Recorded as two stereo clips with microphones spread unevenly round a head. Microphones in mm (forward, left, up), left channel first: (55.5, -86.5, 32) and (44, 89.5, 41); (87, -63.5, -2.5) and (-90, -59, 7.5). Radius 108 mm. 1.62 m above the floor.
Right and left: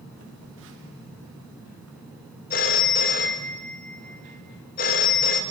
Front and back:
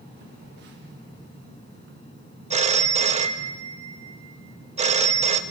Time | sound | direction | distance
0.2 | a phone buzzing | 130° left | 3 m
2.5 | a phone ringing | 135° right | 1.3 m